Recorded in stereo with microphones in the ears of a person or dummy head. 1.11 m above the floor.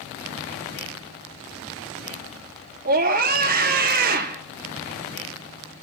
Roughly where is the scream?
Right.